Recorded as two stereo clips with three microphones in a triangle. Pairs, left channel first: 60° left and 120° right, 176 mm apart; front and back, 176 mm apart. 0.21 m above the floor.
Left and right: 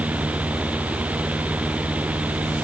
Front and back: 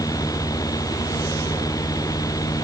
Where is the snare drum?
I don't hear a snare drum.